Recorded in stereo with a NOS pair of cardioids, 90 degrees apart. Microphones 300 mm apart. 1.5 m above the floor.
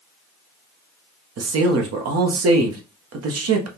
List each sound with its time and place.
1.4 s a man speaking: 55° right, 1.0 m